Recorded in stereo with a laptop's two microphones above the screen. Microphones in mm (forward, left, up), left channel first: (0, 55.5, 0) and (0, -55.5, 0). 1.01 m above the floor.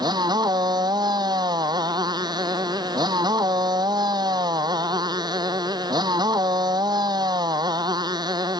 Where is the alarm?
I don't hear an alarm.